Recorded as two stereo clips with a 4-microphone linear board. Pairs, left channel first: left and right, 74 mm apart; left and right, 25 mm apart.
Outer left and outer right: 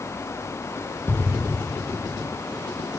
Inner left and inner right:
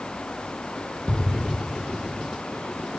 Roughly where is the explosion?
Left.